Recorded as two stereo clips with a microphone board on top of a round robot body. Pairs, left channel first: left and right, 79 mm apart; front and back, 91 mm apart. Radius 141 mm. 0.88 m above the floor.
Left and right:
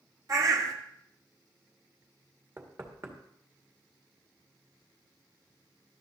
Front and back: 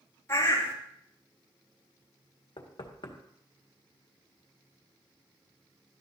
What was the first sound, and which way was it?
A bird, 60° right.